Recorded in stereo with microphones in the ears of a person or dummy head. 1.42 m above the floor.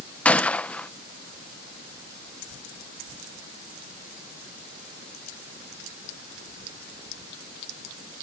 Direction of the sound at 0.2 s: 10° left (ahead or behind).